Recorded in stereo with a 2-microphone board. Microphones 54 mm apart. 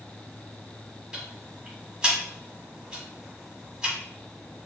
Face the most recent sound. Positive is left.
turn(degrees=-15)  # may be behind; listen again after turning